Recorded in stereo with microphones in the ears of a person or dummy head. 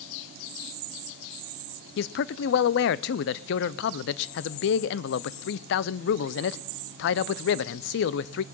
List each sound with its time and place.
2.0 s a man speaking: 70° left (ahead or behind), 0.6 m